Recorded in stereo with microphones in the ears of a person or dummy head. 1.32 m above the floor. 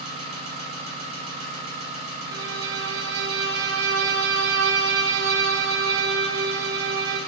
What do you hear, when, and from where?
0.0 s an engine running: 35° right (ahead or behind), 1.0 m
2.3 s a violin: 60° right (ahead or behind), 0.5 m